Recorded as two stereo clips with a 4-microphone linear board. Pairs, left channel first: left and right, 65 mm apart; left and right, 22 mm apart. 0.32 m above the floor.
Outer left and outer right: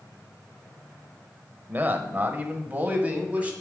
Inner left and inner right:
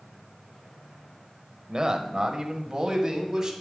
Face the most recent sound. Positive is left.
turn(degrees=-25)  # may be behind; listen again after turning